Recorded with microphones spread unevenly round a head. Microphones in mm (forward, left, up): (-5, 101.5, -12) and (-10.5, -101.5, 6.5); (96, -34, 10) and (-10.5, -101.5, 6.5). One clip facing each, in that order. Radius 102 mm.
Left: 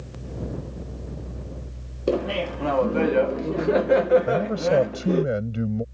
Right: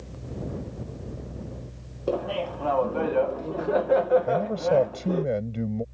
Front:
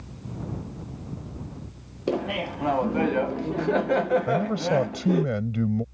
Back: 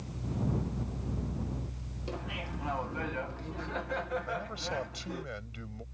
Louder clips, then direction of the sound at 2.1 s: Left 4 dB, front 14 dB; 40° left.